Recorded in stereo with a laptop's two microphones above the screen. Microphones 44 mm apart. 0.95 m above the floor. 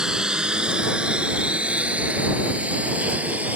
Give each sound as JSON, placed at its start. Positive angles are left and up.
{"t": 0.0, "sound": "a lawn mower", "side_deg": -20}